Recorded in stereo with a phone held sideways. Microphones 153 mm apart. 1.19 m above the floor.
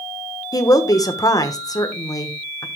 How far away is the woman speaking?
About 1.1 m.